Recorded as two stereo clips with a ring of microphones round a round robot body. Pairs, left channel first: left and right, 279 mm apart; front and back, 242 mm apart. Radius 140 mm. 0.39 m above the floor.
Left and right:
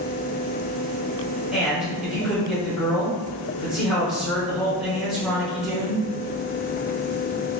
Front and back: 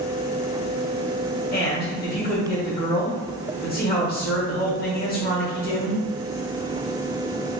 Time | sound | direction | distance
1.5 | a man speaking | 5° right | 1.3 m